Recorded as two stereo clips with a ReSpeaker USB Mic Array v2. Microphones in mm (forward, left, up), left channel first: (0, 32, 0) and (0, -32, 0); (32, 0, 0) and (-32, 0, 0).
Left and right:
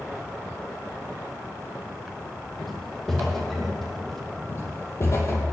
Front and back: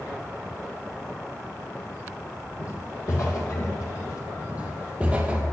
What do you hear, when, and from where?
2.6 s footsteps: 5° left, 2.5 m
4.5 s footsteps: 120° left, 2.5 m